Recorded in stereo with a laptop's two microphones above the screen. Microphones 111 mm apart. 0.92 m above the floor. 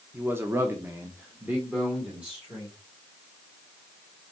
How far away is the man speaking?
About 0.8 m.